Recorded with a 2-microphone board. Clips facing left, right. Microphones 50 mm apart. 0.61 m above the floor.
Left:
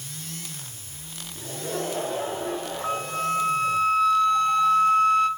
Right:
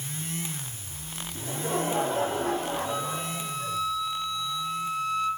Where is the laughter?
80° right, 5 m.